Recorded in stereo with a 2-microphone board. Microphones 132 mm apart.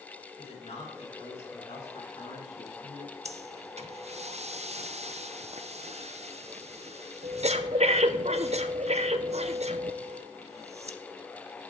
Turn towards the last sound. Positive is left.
turn(degrees=-60)  # may be behind; listen again after turning